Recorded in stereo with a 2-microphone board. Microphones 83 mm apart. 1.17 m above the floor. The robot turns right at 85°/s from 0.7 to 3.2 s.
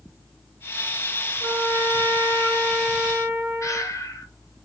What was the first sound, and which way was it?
A trumpet, 40° left.